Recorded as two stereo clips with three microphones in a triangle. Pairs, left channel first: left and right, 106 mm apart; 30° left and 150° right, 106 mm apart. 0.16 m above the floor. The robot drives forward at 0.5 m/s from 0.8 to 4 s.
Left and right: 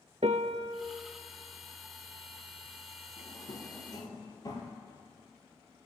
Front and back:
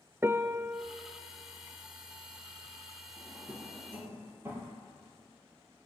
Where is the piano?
80° right, 0.6 m; by 0.8 s 85° right, 0.6 m.